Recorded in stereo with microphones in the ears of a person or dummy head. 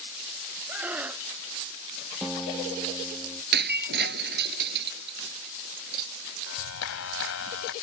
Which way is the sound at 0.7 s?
10° right (ahead or behind).